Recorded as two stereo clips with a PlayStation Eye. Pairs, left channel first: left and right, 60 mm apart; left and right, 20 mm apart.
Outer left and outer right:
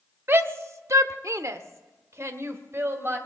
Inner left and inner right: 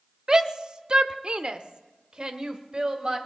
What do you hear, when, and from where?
0.3 s a shout: 35° right (ahead or behind), 1.0 m; by 3.2 s 40° right (ahead or behind), 2.5 m